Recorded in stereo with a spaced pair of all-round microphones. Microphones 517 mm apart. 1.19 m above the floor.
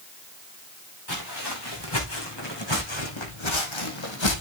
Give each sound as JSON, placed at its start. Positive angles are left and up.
{"t": 1.1, "sound": "footsteps", "side_deg": 45, "distance_m": 4.5}